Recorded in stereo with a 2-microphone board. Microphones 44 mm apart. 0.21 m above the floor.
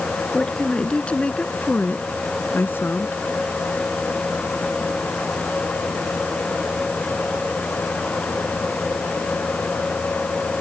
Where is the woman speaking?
15° left (ahead or behind); by 3.2 s 60° left (ahead or behind).